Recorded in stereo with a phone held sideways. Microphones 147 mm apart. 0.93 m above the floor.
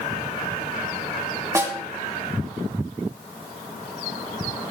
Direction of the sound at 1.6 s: 20° right (ahead or behind).